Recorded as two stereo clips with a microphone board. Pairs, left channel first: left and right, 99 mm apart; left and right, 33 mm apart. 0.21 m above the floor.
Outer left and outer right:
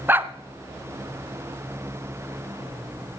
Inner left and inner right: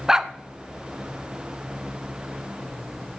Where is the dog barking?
20° right (ahead or behind), 0.6 m.